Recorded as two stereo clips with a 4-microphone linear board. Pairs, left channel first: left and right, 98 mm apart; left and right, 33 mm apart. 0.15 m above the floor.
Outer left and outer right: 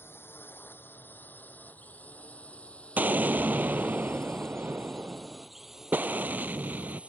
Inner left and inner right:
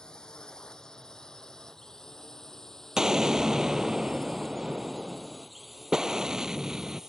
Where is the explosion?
20° right (ahead or behind).